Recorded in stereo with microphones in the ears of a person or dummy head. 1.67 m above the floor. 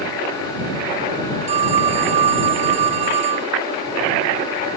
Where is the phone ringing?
35° right (ahead or behind).